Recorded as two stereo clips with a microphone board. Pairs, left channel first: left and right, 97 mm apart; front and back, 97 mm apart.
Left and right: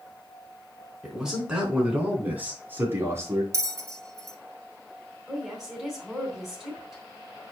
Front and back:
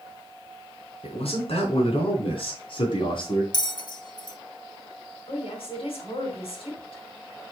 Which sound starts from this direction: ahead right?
A bell, at 3.5 s.